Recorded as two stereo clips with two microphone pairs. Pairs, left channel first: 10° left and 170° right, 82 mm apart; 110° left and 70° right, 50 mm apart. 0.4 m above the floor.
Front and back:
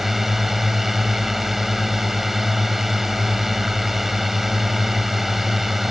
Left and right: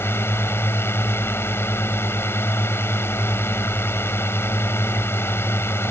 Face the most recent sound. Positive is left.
turn(degrees=105)